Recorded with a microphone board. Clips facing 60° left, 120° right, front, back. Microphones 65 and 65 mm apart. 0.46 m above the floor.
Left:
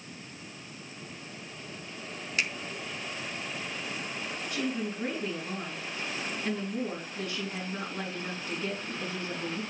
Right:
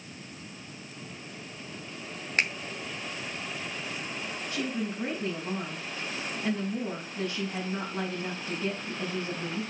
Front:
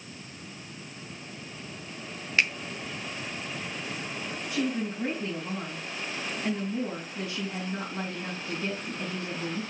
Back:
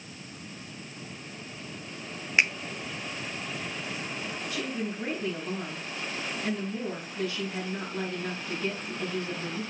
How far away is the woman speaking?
About 4.5 m.